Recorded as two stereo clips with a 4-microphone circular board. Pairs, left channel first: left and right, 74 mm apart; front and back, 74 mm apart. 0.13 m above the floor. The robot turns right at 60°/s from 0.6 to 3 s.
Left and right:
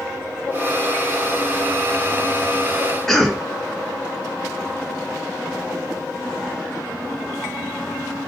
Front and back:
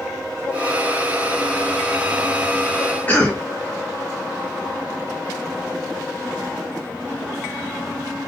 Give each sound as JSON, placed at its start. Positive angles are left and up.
{"t": 3.1, "sound": "a cough", "azimuth_deg": 10, "distance_m": 1.3}